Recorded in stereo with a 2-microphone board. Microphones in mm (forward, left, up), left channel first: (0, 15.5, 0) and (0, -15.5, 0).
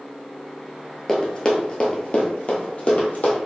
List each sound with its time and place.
1.1 s running footsteps: 20° left (ahead or behind), 0.9 m; by 3.4 s 45° left (ahead or behind), 1.6 m